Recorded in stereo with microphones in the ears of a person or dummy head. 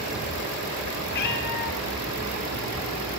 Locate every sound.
1.1 s a cat meowing: 50° left (ahead or behind), 2.5 m; by 3.2 s 25° left (ahead or behind), 1.4 m